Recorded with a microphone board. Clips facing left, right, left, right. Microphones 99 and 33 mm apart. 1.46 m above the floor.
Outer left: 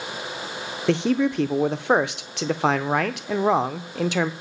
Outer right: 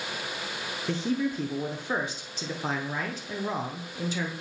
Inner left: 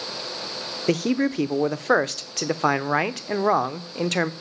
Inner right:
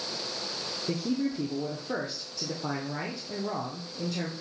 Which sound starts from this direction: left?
A man speaking, at 0.9 s.